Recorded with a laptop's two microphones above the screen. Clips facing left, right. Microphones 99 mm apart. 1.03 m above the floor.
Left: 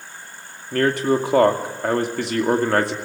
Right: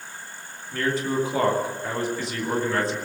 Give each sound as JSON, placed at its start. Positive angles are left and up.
{"t": 0.7, "sound": "a man speaking", "side_deg": 70, "distance_m": 2.5}